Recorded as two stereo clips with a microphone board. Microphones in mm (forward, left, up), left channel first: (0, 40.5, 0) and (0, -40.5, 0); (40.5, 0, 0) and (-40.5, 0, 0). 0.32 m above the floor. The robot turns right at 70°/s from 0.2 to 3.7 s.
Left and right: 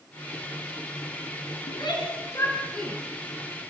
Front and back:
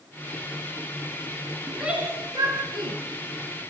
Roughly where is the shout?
Left.